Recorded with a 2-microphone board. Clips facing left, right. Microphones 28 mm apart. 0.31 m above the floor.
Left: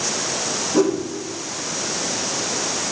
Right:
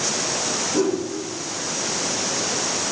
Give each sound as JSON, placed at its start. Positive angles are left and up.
{"t": 0.7, "sound": "a whoosh", "side_deg": 40, "distance_m": 5.5}